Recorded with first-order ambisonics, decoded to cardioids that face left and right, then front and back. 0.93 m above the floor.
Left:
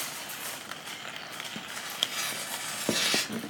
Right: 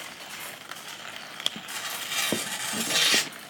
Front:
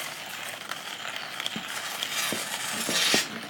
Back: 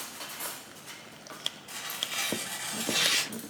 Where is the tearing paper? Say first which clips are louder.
Even, front 3 dB; 70° right, 0.9 m.